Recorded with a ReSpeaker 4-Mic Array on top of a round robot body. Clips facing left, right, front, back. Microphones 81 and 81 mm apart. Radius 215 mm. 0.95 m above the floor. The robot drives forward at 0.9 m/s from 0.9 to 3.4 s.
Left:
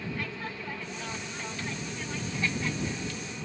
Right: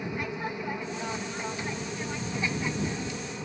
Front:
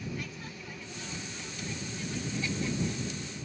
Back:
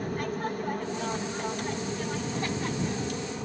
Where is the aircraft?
160° right.